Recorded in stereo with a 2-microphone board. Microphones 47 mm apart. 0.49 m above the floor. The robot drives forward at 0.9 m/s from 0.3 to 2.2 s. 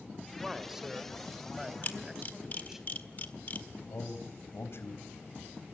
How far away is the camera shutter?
About 1.5 m.